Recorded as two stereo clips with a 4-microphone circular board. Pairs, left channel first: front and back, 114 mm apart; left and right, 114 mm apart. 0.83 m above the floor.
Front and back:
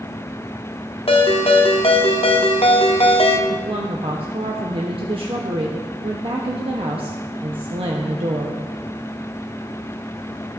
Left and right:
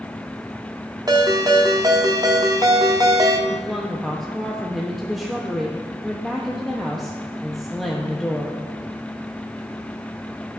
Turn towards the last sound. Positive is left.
turn(degrees=180)